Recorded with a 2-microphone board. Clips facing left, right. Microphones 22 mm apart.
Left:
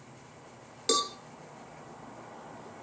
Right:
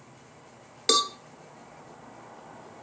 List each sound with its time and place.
0.9 s a cowbell: 30° right (ahead or behind), 1.5 m